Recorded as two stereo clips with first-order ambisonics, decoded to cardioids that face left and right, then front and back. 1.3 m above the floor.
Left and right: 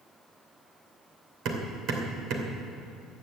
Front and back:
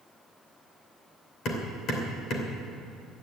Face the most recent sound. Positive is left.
turn(degrees=-50)